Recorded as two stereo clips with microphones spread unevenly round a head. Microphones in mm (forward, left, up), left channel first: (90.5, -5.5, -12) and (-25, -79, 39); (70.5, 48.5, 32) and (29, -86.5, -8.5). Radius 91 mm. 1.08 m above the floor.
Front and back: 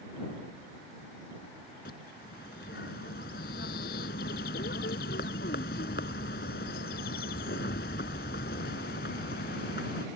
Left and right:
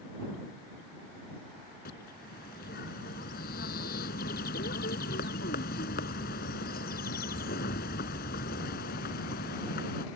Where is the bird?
75° left.